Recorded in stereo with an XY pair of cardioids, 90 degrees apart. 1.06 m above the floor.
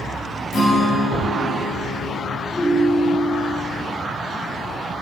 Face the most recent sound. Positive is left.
turn(degrees=50)